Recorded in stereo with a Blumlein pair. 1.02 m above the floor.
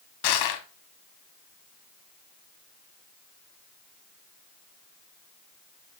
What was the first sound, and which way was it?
Crushing, 50° left.